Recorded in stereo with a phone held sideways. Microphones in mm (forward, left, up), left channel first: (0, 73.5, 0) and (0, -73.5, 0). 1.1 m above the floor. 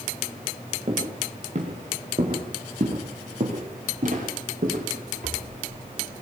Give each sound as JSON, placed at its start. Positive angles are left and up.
{"t": 0.9, "sound": "footsteps", "side_deg": -50, "distance_m": 7.0}